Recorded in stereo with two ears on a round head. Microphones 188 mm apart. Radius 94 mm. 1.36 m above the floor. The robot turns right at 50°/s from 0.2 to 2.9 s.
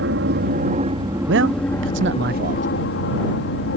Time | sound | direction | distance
0.0 | an aircraft | 65° right | ?
1.3 | a man speaking | 110° right | ?